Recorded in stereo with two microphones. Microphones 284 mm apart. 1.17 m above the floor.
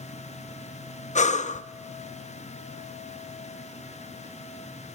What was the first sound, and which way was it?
Breathing, 25° left (ahead or behind).